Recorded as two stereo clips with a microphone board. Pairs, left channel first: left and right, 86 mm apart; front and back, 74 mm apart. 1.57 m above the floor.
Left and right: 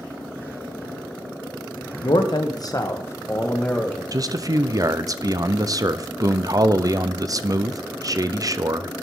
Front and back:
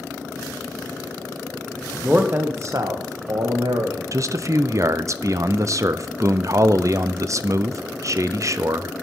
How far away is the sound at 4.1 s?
About 0.5 m.